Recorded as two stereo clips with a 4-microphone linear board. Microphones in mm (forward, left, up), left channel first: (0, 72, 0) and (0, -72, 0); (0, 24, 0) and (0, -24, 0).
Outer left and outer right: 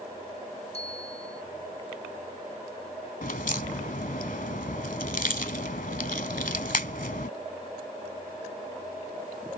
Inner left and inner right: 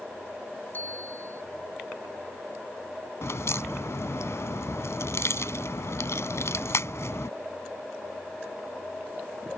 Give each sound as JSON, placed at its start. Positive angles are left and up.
{"t": 0.7, "sound": "a bicycle bell", "side_deg": 40}
{"t": 3.2, "sound": "a crack", "side_deg": 70}